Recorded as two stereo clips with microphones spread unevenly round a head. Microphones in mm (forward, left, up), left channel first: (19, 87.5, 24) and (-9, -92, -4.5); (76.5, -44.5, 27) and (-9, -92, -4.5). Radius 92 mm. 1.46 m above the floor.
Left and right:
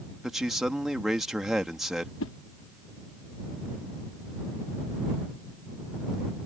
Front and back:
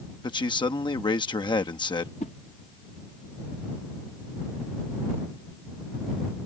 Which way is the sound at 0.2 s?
10° right.